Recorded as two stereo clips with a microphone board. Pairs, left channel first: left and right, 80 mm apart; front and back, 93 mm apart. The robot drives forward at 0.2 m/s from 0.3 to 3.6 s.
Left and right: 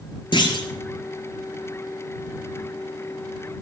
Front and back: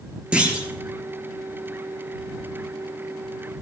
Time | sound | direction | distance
0.3 | a clunk | 100° left | 2.5 m